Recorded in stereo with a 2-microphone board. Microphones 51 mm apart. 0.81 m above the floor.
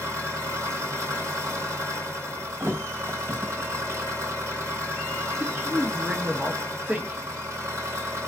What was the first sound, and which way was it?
An engine running, 70° right (ahead or behind).